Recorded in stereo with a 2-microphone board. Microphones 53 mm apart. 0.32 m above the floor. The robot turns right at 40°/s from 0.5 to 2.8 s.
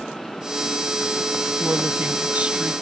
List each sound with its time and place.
1.6 s a woman speaking: 70° right; by 2.7 s 25° right